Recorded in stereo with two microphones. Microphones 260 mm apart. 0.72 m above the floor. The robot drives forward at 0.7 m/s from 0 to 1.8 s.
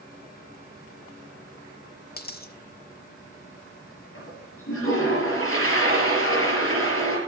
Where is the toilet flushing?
55° left (ahead or behind), 3.5 m.